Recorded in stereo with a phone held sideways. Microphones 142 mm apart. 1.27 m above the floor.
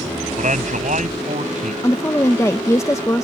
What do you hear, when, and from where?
0.4 s a man speaking: 65° right (ahead or behind)
1.8 s a woman speaking: 20° left (ahead or behind)